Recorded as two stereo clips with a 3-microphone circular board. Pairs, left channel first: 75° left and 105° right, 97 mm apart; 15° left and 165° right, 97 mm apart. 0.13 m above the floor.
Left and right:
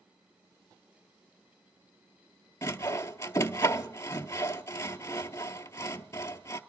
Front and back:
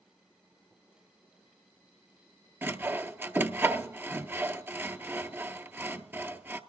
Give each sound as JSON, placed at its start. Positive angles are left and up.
{"t": 2.6, "sound": "sawing", "azimuth_deg": 130, "distance_m": 0.7}